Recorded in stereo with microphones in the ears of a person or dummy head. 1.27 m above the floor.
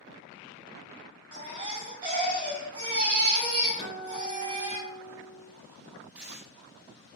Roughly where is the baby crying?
Right.